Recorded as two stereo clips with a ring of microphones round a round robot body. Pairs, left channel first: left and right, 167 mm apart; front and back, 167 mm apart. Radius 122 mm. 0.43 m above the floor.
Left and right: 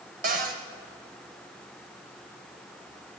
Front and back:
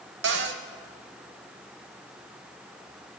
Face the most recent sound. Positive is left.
turn(degrees=-145)